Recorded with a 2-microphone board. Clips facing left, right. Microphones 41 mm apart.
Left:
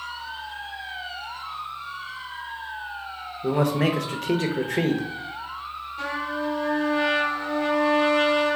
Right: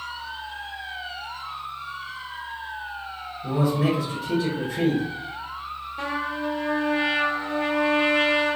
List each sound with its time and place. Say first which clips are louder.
3.4 s a man speaking: left 1 dB; 70° left (ahead or behind), 0.6 m
6.0 s a trumpet: even; 25° right (ahead or behind), 0.9 m